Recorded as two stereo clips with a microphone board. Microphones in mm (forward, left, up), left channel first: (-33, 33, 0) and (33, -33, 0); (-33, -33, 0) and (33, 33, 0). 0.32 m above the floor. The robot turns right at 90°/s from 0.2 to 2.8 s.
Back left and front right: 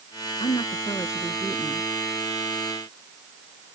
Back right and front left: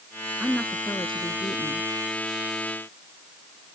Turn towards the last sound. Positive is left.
turn(degrees=-15)